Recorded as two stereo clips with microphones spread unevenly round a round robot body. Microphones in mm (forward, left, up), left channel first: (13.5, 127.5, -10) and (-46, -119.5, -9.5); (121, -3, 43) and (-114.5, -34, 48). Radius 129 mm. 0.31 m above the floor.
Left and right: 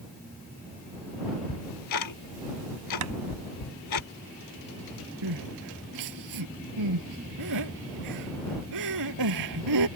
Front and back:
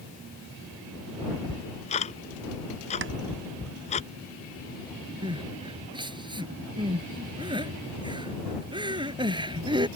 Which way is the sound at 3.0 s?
130° right.